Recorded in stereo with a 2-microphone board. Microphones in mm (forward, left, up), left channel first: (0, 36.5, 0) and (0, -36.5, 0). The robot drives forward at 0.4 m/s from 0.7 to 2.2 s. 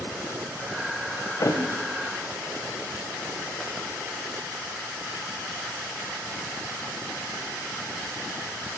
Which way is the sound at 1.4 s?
65° left (ahead or behind).